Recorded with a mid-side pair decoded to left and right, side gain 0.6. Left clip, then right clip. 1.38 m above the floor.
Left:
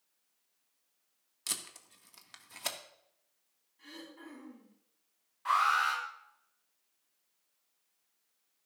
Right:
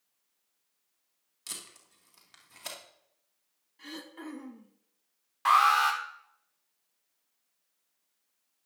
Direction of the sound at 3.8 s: 50° right.